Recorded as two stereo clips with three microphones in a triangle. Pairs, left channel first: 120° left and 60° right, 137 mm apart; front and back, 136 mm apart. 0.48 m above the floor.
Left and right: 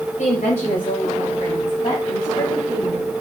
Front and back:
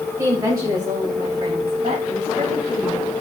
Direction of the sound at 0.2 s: 115° left.